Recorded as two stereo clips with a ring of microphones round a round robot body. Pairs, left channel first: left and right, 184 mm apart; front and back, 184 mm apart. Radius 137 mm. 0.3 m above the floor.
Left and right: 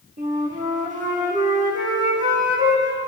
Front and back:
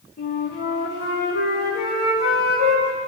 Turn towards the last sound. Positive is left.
turn(degrees=-45)